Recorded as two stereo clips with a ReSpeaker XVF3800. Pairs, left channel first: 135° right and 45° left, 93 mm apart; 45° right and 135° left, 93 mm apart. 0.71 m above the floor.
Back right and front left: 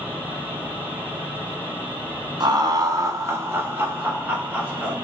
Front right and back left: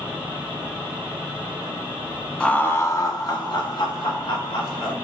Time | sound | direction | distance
2.4 | laughter | 30° left | 0.8 m